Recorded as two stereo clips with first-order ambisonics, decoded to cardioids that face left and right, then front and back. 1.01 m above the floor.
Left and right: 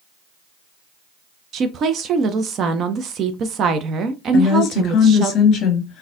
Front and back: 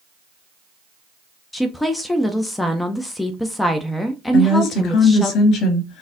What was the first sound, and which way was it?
A woman speaking, 75° right.